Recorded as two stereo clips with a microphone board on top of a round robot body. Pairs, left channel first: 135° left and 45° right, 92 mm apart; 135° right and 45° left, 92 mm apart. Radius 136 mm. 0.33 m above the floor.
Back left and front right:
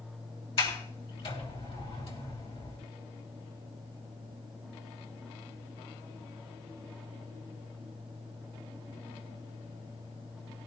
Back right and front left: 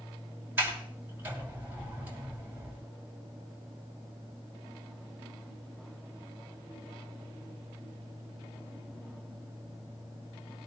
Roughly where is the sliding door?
Behind left.